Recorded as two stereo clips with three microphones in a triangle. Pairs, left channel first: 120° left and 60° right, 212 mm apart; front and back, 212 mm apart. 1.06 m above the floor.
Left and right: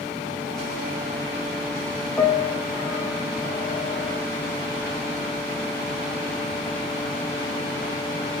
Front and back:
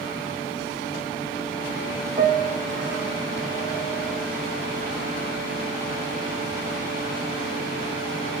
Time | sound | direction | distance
2.2 | a piano | 160° right | 0.6 m